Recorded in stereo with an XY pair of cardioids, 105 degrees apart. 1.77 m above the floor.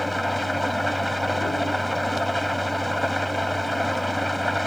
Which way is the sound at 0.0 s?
10° left.